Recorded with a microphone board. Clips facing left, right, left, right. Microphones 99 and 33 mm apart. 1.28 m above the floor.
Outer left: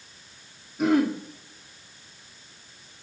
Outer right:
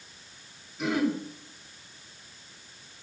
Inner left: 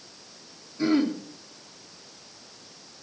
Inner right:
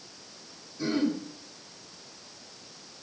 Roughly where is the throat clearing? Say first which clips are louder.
Outer left 5 dB, inner left 4 dB; left.